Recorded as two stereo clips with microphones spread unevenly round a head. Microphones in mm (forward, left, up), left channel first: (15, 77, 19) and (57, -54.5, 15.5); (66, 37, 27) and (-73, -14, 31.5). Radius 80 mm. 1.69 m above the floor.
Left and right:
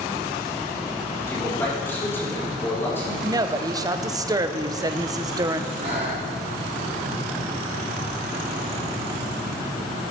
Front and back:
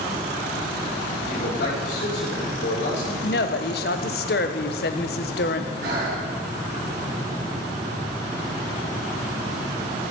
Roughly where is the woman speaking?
Ahead.